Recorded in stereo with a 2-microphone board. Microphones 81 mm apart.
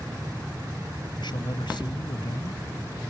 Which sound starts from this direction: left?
A man speaking, at 1.2 s.